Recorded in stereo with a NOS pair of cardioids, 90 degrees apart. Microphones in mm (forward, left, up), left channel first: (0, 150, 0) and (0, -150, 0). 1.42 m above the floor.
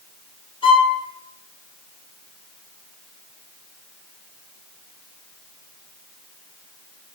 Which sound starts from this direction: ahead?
A violin, at 0.6 s.